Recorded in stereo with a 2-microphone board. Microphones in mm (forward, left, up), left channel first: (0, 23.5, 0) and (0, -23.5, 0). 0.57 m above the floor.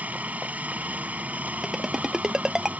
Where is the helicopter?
30° right (ahead or behind).